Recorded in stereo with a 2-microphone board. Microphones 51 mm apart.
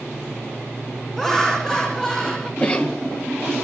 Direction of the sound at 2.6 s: 25° left (ahead or behind).